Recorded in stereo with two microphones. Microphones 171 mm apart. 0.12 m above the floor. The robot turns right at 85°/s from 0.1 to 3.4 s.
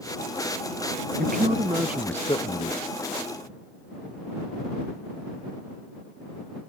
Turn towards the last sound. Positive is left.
turn(degrees=120)